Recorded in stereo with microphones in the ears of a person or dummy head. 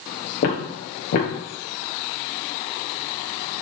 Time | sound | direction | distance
0.4 | footsteps | 45° left (ahead or behind) | 1.6 m